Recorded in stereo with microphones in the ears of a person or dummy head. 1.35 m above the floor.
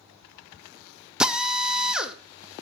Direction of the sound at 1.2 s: 5° right (ahead or behind).